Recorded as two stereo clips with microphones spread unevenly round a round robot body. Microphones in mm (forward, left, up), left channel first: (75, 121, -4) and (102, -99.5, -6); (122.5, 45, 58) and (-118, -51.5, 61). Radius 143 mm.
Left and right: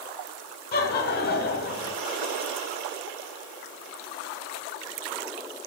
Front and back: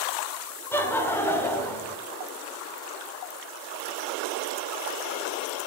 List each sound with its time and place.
0.7 s laughter: 100° left, 1.0 m